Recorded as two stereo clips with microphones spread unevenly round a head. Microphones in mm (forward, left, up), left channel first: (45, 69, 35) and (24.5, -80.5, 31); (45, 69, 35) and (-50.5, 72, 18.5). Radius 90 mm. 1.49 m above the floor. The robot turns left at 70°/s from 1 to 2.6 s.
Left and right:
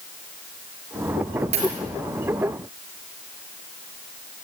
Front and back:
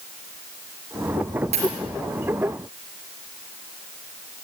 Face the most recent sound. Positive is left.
turn(degrees=135)